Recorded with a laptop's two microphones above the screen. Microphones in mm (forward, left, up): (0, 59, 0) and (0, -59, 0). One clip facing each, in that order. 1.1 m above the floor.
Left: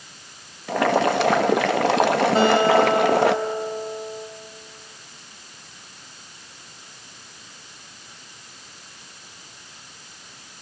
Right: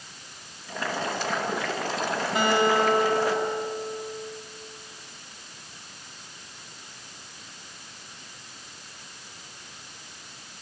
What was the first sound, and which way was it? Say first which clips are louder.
Boiling: left 11 dB; 85° left.